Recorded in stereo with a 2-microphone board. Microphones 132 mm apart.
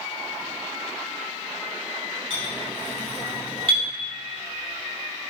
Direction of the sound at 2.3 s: 45° right (ahead or behind).